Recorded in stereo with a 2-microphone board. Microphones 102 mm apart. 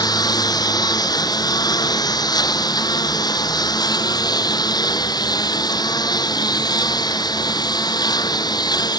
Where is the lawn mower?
40° left (ahead or behind).